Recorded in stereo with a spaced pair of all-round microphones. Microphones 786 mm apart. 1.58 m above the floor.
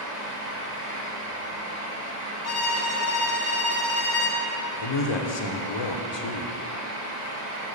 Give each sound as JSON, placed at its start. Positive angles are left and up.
{"t": 0.0, "sound": "a fan", "side_deg": -60, "distance_m": 1.2}
{"t": 2.4, "sound": "a violin", "side_deg": 50, "distance_m": 1.3}
{"t": 4.8, "sound": "a man speaking", "side_deg": 40, "distance_m": 0.6}